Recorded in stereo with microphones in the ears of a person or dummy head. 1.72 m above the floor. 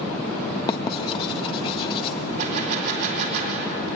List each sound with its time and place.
0.7 s writing: 30° left (ahead or behind), 1.4 m
2.4 s a gunshot: 60° right (ahead or behind), 4 m